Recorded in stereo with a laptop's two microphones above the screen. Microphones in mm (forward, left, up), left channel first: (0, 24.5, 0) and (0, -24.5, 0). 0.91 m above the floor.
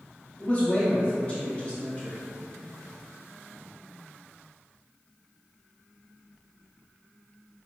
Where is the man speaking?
25° left (ahead or behind), 1.0 m.